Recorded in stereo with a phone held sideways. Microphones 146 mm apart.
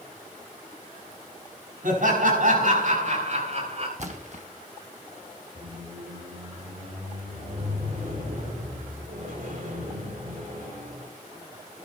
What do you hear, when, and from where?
1.8 s laughter: 70° right (ahead or behind), 6 m; by 3.9 s 50° right (ahead or behind), 4.5 m
4.0 s a splash: 55° right (ahead or behind), 1.5 m
5.5 s a squeak: 70° right (ahead or behind), 4.5 m